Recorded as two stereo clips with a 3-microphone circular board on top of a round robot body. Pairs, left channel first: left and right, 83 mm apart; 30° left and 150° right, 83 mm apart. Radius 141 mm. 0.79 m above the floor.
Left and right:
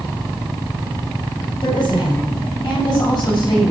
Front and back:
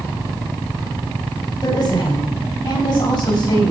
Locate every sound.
1.6 s a woman speaking: 60° left, 5 m; by 3.7 s 55° left, 7 m